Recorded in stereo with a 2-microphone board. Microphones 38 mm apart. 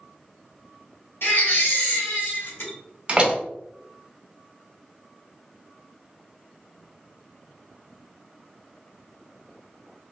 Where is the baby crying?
80° left, 1.8 m.